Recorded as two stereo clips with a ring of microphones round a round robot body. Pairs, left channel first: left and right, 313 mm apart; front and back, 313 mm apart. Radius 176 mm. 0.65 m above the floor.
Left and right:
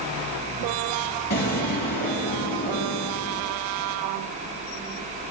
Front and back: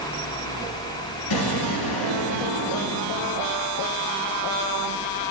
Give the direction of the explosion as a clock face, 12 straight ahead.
11 o'clock.